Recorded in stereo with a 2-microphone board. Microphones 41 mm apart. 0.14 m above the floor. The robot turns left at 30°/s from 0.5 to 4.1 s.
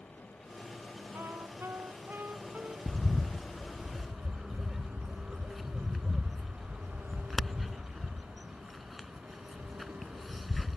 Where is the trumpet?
90° right; by 2.8 s 140° right.